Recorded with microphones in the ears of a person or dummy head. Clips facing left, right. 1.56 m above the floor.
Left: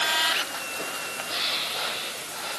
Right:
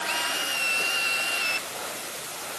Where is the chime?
No chime in this recording.